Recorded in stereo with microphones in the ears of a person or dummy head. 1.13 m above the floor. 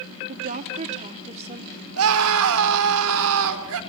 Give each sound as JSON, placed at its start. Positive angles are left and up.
{"t": 0.3, "sound": "a woman speaking", "side_deg": -40, "distance_m": 2.0}
{"t": 2.0, "sound": "a scream", "side_deg": -75, "distance_m": 4.0}